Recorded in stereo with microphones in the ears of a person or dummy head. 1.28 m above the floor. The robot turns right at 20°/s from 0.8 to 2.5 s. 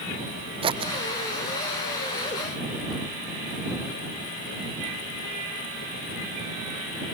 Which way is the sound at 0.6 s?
25° right (ahead or behind).